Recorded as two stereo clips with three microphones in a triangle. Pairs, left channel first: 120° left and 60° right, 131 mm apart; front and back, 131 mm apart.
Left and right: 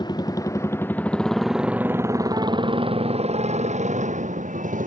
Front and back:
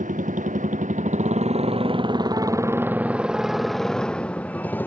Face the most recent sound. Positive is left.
turn(degrees=-75)